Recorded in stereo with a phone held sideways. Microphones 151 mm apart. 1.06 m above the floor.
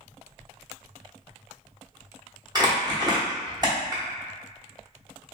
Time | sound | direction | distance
2.5 | crumpling | 30° right (ahead or behind) | 0.9 m